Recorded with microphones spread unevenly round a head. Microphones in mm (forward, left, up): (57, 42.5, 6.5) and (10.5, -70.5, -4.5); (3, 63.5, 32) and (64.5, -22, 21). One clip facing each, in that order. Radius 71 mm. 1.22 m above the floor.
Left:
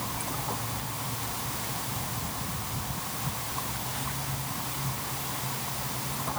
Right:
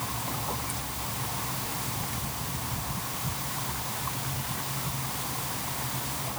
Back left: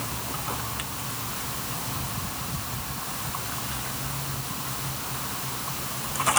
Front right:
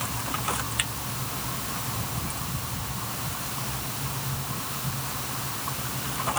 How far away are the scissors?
No scissors in this recording.